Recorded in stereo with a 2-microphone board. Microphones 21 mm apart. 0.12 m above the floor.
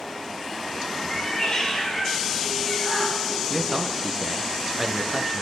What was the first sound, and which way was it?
A cat meowing, 25° left (ahead or behind).